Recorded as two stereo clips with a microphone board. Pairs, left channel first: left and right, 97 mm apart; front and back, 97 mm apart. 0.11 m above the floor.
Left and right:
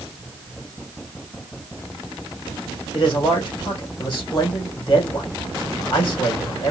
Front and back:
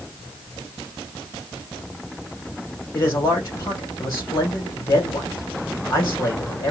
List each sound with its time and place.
2.9 s a man speaking: 50° left, 3.5 m